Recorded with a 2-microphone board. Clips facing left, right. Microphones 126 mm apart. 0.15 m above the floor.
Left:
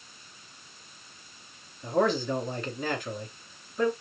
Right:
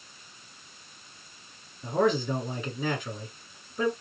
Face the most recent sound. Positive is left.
turn(degrees=0)  # may be behind; listen again after turning